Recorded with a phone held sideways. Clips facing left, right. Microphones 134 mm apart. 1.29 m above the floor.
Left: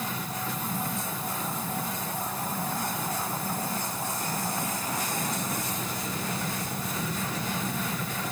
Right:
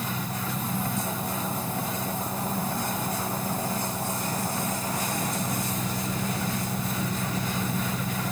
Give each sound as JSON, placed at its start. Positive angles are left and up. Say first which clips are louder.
{"t": 0.0, "sound": "an engine running", "louder": "right 2 dB", "side_deg": -25}